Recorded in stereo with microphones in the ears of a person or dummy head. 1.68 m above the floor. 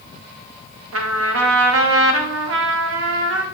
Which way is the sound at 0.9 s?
85° right.